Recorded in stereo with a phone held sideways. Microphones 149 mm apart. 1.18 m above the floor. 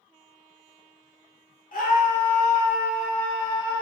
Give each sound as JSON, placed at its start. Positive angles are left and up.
{"t": 1.7, "sound": "a scream", "side_deg": 70, "distance_m": 0.7}